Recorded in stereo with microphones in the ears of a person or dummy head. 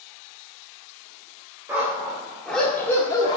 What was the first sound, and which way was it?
A dog barking, 10° right (ahead or behind).